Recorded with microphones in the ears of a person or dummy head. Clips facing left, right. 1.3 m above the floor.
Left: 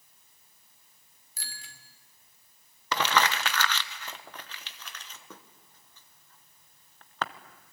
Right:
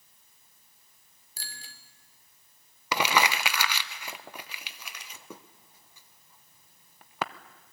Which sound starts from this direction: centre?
Crumpling, at 2.9 s.